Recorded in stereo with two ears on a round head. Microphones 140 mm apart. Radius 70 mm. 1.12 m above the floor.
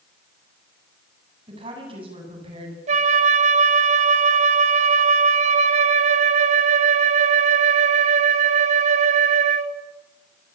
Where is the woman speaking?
35° right (ahead or behind), 9 m.